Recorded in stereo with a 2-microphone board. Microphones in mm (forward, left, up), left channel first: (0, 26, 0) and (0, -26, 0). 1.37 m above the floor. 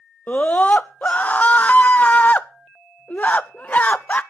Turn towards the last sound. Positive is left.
turn(degrees=30)  # may be behind; listen again after turning